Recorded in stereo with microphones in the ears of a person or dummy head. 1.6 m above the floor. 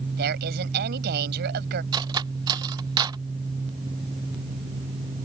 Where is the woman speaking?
55° right (ahead or behind).